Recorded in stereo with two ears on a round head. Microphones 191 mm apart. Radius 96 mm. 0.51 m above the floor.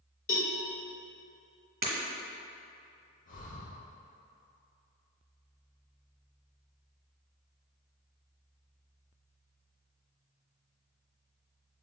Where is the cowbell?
40° left (ahead or behind), 1.0 m.